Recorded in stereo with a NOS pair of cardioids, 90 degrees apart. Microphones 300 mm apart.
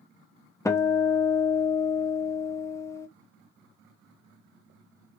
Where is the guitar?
10° left, 0.7 m.